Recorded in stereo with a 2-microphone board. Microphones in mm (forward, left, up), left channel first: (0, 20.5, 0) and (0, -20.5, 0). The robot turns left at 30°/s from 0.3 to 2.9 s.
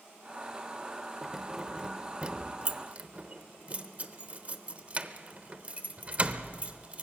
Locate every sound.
1.2 s keys jangling: 10° right (ahead or behind), 0.9 m; by 7.0 s 35° right (ahead or behind), 0.9 m